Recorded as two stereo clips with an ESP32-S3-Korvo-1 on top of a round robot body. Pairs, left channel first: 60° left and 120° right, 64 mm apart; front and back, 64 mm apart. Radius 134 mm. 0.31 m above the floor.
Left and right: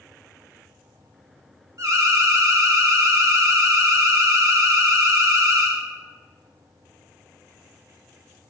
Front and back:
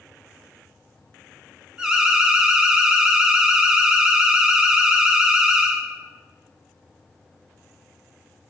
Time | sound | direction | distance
1.8 | an alarm | 100° right | 1.0 m